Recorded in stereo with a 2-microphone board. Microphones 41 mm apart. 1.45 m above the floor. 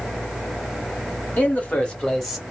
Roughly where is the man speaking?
Left.